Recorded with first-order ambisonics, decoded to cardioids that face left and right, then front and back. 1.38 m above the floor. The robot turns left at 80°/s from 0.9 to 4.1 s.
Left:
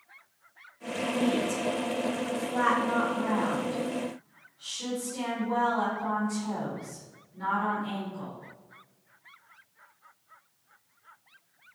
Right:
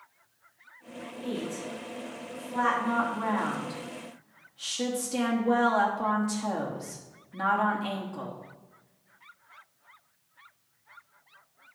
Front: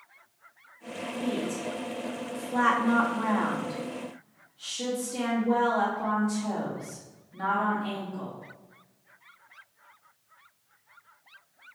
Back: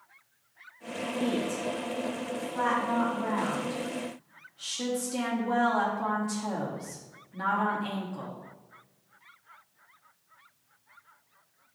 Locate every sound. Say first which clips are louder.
1.2 s a woman speaking: left 5 dB, back 1 dB; 125° left, 3 m; by 8.3 s 105° right, 3 m